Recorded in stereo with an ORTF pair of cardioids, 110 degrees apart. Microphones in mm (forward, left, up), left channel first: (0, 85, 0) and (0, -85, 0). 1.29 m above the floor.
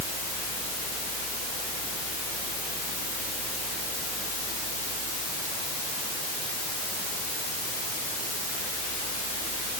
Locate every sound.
Only background noise.